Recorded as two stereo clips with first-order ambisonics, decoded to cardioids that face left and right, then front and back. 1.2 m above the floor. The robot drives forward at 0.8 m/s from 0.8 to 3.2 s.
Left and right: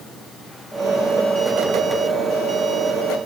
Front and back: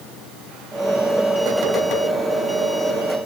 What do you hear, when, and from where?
Only background noise.